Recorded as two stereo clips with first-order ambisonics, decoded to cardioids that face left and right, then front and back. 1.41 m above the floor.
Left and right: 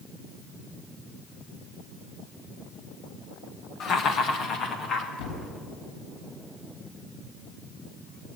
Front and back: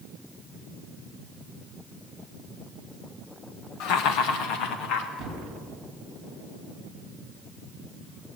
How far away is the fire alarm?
I don't hear a fire alarm.